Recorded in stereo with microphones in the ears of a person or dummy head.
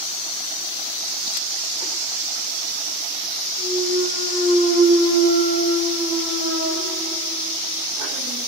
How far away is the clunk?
About 1.3 m.